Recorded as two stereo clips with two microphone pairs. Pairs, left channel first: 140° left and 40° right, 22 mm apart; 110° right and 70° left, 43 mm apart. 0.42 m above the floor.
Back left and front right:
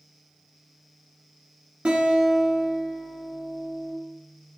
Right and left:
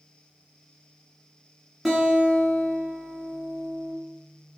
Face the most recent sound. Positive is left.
turn(degrees=-10)